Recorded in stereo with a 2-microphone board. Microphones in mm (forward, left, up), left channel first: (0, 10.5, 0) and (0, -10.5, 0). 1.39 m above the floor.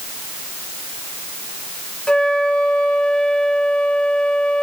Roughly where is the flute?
Left.